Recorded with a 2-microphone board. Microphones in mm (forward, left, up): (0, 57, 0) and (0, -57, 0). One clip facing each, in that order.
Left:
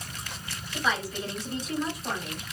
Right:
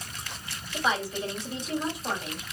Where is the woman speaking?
25° right (ahead or behind), 1.7 m.